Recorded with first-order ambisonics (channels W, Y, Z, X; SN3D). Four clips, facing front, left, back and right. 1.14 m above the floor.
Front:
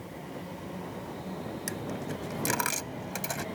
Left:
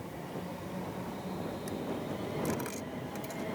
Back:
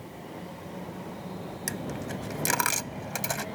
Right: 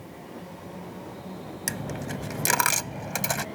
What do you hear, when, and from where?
1.7 s a dropped coin: 105° right